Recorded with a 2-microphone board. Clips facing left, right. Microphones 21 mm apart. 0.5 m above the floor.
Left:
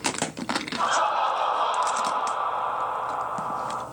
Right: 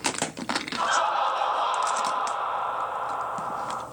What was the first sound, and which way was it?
Laughter, 10° right (ahead or behind).